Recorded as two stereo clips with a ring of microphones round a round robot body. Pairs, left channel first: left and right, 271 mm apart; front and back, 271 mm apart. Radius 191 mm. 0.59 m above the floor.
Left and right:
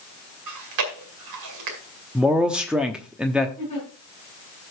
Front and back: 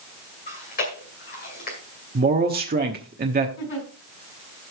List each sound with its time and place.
0.5 s chewing: 65° right, 2.0 m
2.1 s a man speaking: 175° right, 1.0 m
3.6 s a giggle: 15° left, 6 m